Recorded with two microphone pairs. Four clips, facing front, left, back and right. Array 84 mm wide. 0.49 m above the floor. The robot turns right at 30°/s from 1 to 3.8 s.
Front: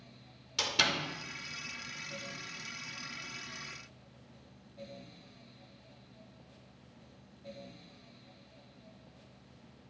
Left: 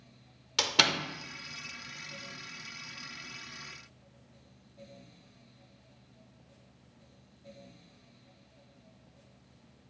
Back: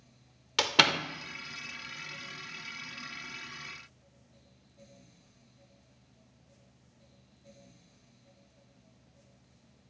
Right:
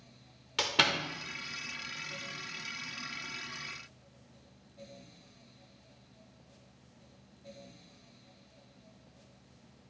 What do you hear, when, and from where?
0.6 s a door slam: 170° left, 0.7 m